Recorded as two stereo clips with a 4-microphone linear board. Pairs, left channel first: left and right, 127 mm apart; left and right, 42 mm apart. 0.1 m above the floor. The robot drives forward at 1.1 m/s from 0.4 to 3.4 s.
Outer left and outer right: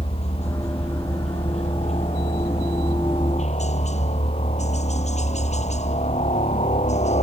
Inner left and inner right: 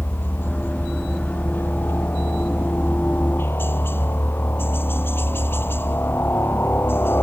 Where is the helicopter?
60° left (ahead or behind).